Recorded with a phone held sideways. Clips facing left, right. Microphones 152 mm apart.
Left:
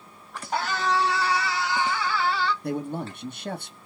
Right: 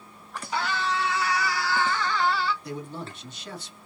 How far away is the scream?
About 2.5 m.